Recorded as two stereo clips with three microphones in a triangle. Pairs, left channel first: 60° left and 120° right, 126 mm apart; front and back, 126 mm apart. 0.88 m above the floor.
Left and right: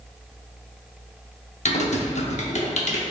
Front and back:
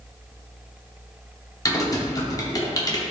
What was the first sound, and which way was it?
Typing on a keyboard, 60° left.